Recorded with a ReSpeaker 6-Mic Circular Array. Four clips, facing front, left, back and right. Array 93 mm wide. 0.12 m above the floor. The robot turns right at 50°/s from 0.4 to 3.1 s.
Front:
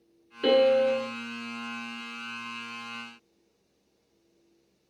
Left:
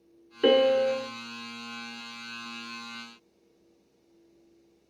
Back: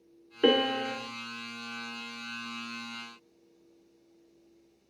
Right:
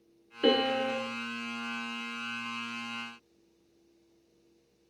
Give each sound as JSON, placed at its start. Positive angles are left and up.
{"t": 0.4, "sound": "a piano", "azimuth_deg": 155, "distance_m": 0.5}